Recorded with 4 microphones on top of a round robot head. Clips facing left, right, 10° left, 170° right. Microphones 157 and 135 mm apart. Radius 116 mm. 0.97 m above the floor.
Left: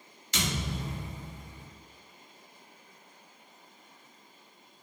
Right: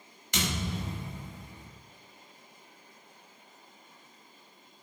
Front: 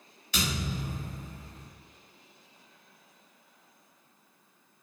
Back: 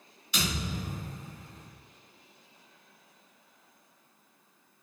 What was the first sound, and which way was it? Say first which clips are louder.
A thud: right 1 dB, front 1 dB; 55° right.